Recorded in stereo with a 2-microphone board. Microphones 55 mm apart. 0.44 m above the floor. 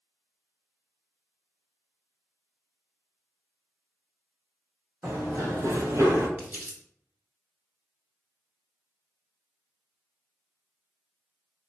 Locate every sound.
5.0 s running footsteps: 45° right (ahead or behind), 1.2 m; by 6.3 s 55° right (ahead or behind), 0.7 m
6.4 s crumpling: 35° right (ahead or behind), 1.2 m